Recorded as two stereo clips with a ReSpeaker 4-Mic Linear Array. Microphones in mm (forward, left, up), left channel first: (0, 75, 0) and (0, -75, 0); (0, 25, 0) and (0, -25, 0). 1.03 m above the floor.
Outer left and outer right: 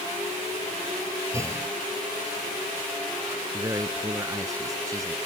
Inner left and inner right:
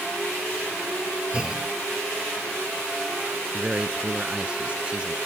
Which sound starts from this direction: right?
A man speaking, at 3.5 s.